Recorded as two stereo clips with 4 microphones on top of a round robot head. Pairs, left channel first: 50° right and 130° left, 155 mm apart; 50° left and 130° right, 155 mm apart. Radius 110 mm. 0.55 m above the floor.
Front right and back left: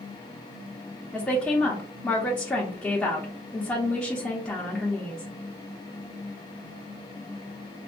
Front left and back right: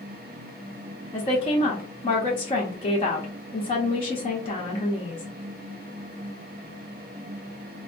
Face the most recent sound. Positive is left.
turn(degrees=30)